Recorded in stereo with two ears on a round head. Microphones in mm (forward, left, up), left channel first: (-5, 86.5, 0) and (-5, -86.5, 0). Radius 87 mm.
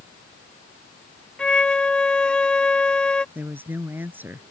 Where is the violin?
5° left (ahead or behind).